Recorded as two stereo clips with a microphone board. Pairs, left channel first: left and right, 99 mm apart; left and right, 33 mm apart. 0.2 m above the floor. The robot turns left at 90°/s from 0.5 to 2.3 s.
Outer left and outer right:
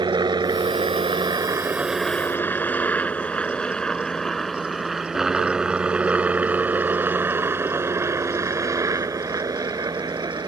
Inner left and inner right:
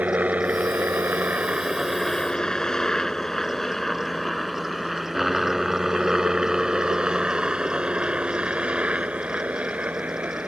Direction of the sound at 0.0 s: 50° right (ahead or behind).